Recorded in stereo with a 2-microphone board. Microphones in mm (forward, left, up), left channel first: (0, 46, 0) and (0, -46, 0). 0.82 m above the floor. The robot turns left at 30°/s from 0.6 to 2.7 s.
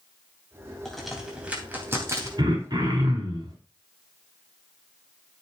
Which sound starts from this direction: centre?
A crack, at 0.8 s.